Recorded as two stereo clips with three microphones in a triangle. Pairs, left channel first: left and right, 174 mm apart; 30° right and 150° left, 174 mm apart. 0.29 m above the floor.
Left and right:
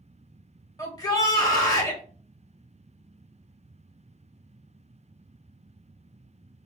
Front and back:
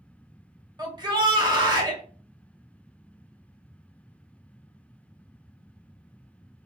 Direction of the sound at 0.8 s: 125° left.